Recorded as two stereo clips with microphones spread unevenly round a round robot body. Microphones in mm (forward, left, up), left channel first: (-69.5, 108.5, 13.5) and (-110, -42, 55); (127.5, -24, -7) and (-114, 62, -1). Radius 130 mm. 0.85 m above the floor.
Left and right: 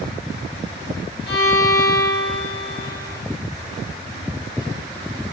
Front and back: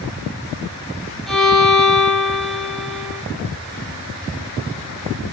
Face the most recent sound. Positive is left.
turn(degrees=70)